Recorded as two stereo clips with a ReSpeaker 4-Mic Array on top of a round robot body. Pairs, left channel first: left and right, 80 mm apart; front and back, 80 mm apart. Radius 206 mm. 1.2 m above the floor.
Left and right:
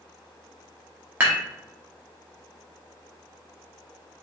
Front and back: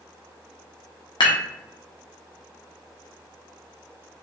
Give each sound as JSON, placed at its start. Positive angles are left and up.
{"t": 1.2, "sound": "dishes clattering", "azimuth_deg": -25, "distance_m": 0.9}